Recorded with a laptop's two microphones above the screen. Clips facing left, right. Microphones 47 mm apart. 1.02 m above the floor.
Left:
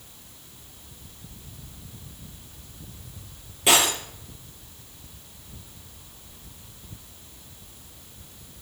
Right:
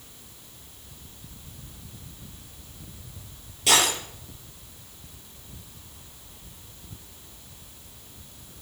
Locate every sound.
3.7 s breaking glass: 25° left (ahead or behind), 5 m